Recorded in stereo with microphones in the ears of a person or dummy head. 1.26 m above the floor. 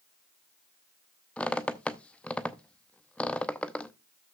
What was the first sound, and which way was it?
A squeak, 5° left (ahead or behind).